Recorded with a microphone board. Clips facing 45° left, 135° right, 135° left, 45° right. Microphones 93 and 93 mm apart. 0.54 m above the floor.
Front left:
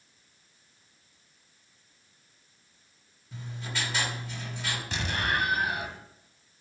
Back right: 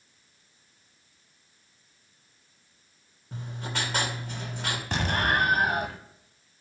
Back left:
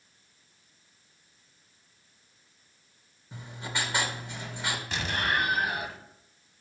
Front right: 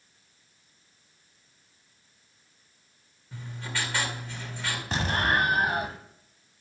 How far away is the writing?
About 2.5 m.